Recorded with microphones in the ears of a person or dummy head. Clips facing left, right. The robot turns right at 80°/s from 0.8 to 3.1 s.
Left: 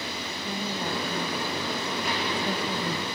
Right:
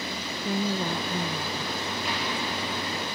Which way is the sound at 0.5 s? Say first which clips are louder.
Right 5 dB; 75° right.